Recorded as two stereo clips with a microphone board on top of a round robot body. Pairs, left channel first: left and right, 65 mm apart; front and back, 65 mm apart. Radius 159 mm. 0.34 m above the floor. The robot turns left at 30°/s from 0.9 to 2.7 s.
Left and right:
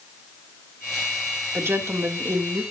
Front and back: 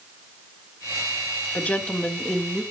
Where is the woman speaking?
55° right, 1.8 m; by 2.6 s 85° right, 1.8 m.